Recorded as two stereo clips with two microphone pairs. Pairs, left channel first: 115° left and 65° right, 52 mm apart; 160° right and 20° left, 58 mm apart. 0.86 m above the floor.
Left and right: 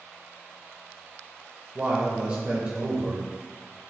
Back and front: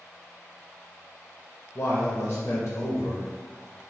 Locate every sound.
1.8 s a man speaking: 115° right, 0.7 m